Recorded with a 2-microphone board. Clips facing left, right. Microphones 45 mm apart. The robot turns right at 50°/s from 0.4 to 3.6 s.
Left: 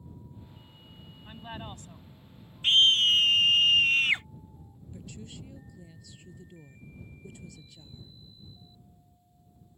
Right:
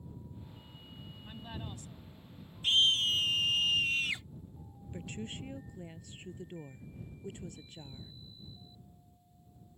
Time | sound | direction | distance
1.2 | a woman speaking | 20° left | ?
2.6 | a scream | 60° left | ?
4.9 | a woman speaking | 40° right (ahead or behind) | ?